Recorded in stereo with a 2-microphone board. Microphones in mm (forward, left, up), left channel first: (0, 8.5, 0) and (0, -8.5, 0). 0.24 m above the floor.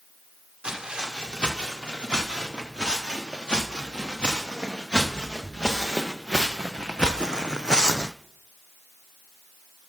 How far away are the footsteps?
About 4 m.